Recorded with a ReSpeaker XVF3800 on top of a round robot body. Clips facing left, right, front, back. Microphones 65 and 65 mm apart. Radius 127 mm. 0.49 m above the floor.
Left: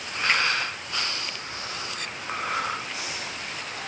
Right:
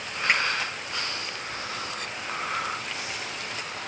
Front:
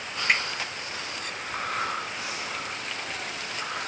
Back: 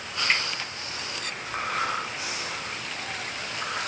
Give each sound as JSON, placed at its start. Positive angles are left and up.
{"t": 0.3, "sound": "a finger snap", "azimuth_deg": -25, "distance_m": 5.5}